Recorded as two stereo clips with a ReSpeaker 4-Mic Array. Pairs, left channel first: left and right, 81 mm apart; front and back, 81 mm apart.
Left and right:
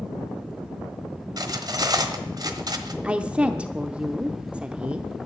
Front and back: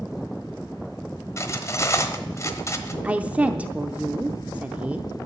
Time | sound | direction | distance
1.4 | cutlery clinking | 55° right | 1.2 m
3.0 | a woman speaking | 140° right | 0.7 m